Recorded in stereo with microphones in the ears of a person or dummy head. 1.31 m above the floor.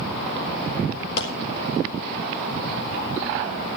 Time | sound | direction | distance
1.2 | a clap | 65° left (ahead or behind) | 4 m